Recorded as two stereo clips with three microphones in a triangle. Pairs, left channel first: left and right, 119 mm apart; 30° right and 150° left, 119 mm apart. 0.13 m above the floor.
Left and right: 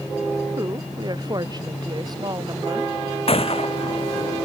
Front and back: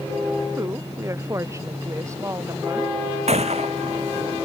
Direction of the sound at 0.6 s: 145° right.